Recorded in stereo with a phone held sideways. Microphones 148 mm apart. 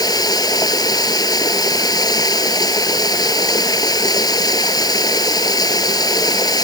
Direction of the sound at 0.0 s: 25° left (ahead or behind).